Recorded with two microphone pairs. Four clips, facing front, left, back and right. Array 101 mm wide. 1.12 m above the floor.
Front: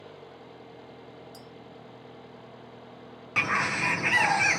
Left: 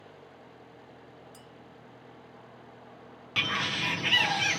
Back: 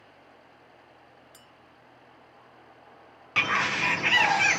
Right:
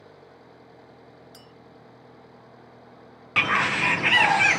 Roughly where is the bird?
Right.